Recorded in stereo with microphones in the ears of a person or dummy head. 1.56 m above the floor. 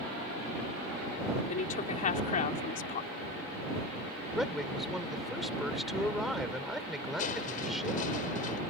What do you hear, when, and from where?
1.5 s a woman speaking: 40° left (ahead or behind)
4.3 s a man speaking: centre (ahead or behind)
7.2 s crushing: 45° left (ahead or behind)